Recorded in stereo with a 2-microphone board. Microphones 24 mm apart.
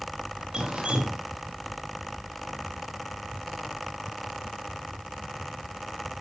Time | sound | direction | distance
0.5 | dripping | 50° right (ahead or behind) | 1.1 m